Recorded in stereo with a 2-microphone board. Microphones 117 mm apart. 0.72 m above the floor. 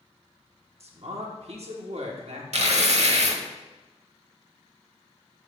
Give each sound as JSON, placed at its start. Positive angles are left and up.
{"t": 0.8, "sound": "a man speaking", "side_deg": -60, "distance_m": 1.3}
{"t": 2.5, "sound": "tearing paper", "side_deg": -65, "distance_m": 0.8}